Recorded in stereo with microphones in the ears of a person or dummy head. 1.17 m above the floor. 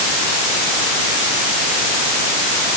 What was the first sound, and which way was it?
Only background noise.